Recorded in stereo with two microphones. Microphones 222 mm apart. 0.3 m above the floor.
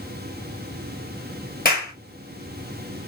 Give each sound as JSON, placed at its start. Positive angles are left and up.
{"t": 1.6, "sound": "a clap", "side_deg": 40, "distance_m": 4.5}